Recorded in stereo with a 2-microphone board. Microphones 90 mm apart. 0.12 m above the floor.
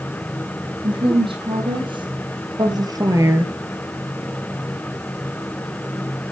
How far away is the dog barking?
I don't hear a dog barking.